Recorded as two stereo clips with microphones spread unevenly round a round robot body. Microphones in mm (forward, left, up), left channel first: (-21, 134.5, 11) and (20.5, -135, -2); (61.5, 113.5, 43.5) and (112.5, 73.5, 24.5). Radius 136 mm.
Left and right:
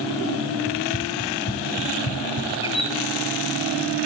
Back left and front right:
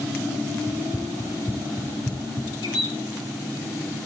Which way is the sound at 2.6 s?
170° left.